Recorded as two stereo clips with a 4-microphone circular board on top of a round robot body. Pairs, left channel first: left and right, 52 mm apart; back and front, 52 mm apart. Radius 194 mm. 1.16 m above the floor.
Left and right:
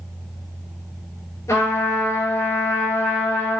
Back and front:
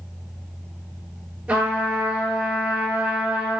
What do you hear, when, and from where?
1.5 s a trumpet: 60° left, 5 m